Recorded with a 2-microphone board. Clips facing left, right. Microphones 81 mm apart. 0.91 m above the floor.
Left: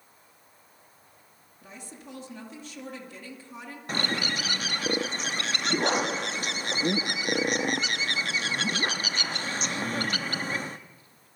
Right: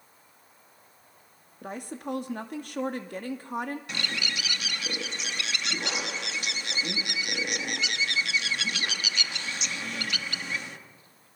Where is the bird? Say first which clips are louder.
Left 4 dB; 40° left (ahead or behind), 0.8 m.